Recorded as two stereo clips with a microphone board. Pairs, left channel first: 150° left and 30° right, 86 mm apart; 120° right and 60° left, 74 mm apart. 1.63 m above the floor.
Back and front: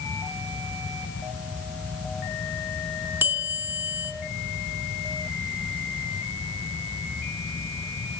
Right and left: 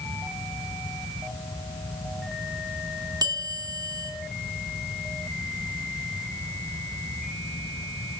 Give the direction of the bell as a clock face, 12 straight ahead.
11 o'clock.